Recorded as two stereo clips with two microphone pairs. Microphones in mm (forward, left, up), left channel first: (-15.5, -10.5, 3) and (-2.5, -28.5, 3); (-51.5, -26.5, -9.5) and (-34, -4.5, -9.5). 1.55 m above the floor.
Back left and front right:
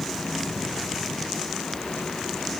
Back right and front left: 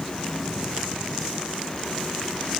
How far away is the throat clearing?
I don't hear throat clearing.